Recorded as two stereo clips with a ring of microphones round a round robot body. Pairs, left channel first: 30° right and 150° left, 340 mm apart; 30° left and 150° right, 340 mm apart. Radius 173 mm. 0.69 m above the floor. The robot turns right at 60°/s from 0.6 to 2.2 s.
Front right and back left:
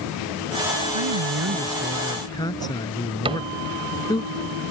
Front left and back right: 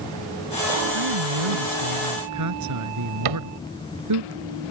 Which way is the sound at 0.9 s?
175° left.